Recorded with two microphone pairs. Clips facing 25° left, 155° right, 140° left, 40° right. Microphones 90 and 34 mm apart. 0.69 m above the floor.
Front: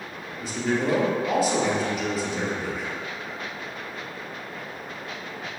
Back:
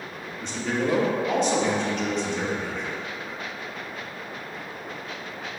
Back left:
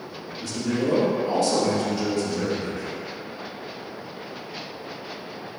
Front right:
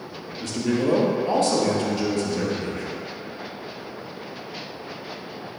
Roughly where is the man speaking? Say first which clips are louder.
Front 1 dB, front right 2 dB; ahead right.